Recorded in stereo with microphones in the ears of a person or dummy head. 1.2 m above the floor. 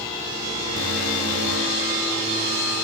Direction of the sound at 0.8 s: 65° right (ahead or behind).